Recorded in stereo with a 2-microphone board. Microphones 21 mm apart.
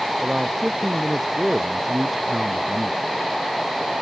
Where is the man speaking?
5° right (ahead or behind).